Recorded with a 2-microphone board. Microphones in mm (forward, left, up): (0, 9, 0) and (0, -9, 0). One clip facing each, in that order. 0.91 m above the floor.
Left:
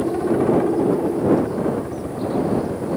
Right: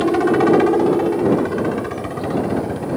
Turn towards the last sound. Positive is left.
turn(degrees=-60)  # may be behind; listen again after turning